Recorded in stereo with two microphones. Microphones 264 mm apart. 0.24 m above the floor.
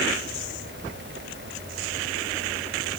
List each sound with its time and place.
Only background noise.